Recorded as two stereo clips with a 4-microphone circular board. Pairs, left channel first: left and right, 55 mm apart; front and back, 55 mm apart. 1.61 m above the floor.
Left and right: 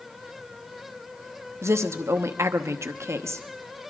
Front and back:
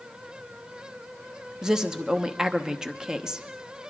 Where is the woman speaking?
105° right, 0.9 m.